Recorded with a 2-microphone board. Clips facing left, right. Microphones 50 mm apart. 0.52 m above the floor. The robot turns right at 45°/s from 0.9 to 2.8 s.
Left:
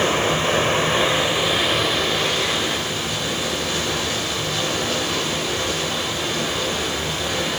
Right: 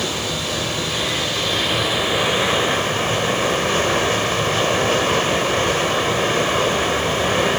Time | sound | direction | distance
0.0 | running water | 140° left | 1.6 m